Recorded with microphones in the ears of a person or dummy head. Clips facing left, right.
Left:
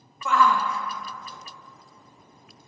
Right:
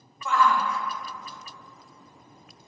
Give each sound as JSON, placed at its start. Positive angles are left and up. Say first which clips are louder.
{"t": 0.2, "sound": "a shout", "louder": "left 1 dB", "side_deg": 55, "distance_m": 0.9}